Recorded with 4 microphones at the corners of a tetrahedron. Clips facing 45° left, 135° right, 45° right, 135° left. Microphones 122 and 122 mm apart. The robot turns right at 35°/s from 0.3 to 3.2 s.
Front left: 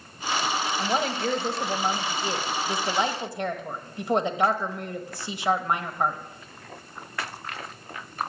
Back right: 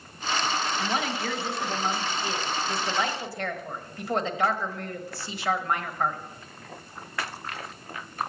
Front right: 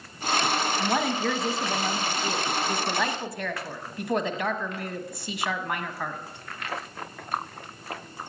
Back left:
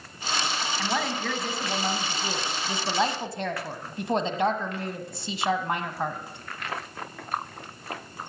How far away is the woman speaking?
About 1.2 m.